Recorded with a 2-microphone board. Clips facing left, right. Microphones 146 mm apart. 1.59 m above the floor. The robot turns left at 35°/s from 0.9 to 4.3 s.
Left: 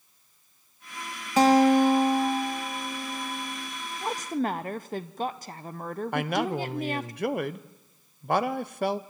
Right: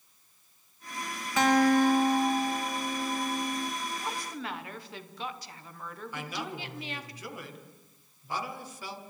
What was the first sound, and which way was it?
A guitar, 35° left.